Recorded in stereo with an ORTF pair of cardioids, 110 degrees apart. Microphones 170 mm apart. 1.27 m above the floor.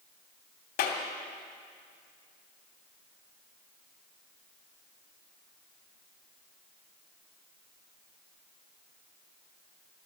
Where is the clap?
65° left, 2.5 m.